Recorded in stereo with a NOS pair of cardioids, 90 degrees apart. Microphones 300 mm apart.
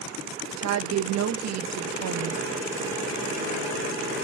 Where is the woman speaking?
55° right, 1.1 m.